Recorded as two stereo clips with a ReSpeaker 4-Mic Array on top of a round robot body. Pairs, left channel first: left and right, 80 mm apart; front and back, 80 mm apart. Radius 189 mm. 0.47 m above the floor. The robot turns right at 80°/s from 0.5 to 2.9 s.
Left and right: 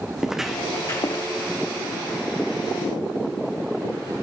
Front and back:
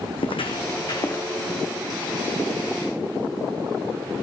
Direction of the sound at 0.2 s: 10° right.